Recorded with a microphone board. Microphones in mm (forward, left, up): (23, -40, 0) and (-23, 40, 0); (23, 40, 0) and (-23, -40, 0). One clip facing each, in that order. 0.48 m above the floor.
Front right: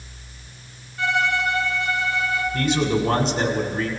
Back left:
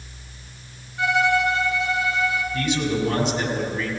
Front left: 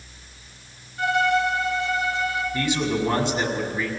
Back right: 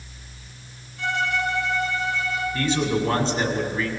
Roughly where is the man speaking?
Ahead.